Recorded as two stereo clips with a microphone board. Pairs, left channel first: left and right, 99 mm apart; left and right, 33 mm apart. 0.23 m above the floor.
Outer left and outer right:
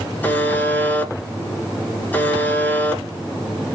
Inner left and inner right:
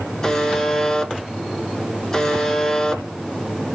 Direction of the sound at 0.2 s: 20° left (ahead or behind).